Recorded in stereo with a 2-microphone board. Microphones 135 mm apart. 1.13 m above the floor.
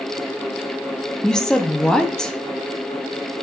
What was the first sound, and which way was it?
A woman speaking, 5° left (ahead or behind).